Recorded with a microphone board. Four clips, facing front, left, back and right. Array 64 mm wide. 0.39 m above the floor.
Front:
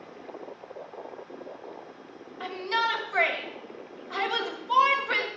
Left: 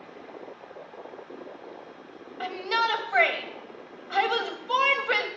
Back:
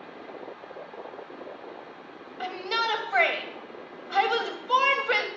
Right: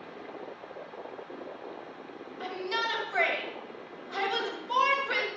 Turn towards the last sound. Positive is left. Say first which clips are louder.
# left 6 dB, front 1 dB
turn(degrees=130)